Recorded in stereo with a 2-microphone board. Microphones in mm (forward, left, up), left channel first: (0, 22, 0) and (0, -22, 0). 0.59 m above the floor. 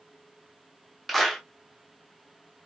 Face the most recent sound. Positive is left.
turn(degrees=0)  # may be behind; listen again after turning